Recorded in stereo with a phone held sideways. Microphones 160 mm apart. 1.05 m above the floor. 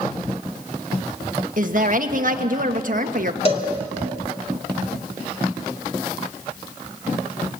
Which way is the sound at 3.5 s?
35° left (ahead or behind).